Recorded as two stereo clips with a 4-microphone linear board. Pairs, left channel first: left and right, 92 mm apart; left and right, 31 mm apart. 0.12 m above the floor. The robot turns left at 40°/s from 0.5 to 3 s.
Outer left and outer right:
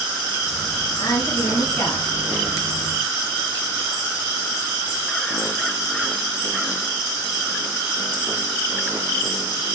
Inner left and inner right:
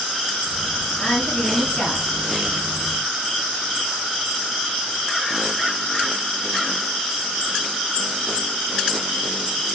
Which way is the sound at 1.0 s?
55° left.